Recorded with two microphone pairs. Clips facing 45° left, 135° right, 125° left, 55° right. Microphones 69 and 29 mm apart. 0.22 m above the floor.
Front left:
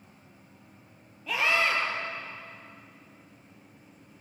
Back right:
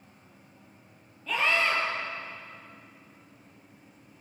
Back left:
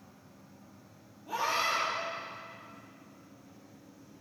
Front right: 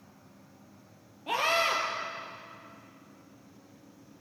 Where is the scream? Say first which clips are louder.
Even, front right 3 dB; 35° right, 6.5 m.